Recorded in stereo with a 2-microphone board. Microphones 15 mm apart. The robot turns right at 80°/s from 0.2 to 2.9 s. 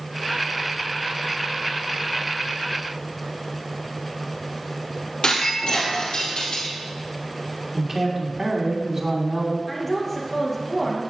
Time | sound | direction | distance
5.2 | breaking glass | 75° left (ahead or behind) | 2.5 m
7.7 | a man speaking | 25° right (ahead or behind) | 1.8 m
9.7 | a woman speaking | 15° left (ahead or behind) | 2.5 m